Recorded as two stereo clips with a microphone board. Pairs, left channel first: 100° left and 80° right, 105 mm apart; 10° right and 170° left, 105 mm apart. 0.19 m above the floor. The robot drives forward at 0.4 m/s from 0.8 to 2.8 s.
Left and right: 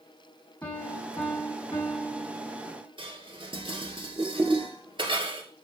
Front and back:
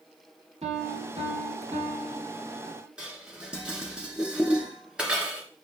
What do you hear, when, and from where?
0.6 s a piano: 165° left, 3 m; by 2.9 s 170° left, 4 m
3.0 s dishes clattering: 110° right, 1.7 m